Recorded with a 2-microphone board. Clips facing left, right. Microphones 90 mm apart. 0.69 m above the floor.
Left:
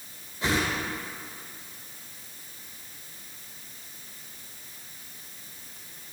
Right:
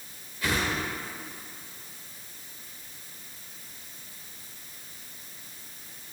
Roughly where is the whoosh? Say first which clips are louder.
Left 2 dB; left.